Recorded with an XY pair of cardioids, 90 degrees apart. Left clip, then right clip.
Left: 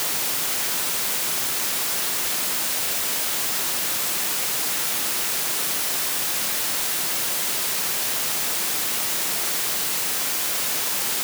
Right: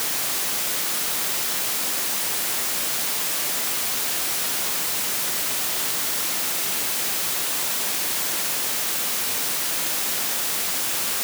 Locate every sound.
Only background noise.